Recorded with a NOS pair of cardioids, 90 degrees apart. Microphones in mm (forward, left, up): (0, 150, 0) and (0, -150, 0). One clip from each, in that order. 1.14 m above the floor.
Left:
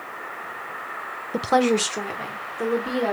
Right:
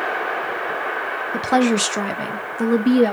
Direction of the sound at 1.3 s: 10° left.